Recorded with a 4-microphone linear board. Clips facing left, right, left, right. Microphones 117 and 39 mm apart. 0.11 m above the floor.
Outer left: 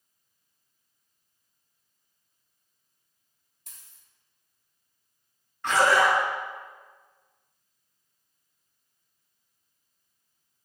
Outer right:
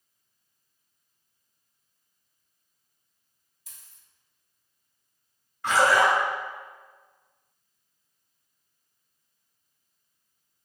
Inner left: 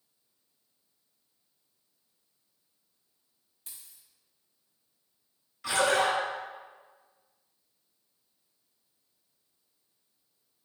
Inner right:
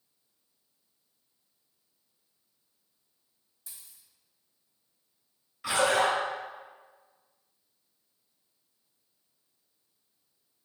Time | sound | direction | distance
3.7 | a dropped coin | 65° left (ahead or behind) | 1.0 m
5.6 | a splash | 10° right (ahead or behind) | 1.7 m